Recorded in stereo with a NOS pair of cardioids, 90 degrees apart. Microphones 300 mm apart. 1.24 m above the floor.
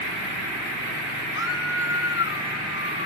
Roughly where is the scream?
Ahead left.